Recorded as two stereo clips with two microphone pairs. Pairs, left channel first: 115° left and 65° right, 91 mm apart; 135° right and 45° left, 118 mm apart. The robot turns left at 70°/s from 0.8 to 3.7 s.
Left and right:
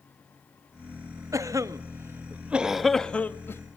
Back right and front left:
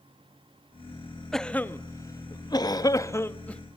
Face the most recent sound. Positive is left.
turn(degrees=140)